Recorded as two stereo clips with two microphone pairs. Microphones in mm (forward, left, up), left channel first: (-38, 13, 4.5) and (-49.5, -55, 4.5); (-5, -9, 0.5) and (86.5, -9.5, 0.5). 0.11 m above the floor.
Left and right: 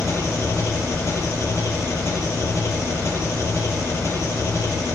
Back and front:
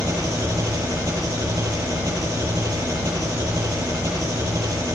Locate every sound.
0.0 s an engine running: 45° left, 2.5 m